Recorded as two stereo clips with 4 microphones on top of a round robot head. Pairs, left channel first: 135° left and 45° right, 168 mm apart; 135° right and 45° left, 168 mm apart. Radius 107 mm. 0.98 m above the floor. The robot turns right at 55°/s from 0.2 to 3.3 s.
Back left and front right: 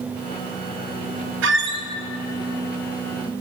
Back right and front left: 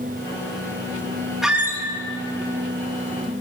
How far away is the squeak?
About 0.5 m.